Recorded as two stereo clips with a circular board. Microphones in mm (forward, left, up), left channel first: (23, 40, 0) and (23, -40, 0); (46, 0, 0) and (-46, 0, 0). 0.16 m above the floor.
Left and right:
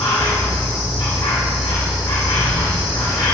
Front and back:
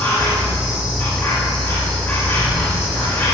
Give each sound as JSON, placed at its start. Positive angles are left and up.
{"t": 0.0, "sound": "an insect", "azimuth_deg": 60, "distance_m": 5.5}